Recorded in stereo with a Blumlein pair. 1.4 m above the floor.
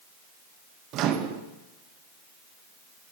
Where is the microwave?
35° right, 0.6 m.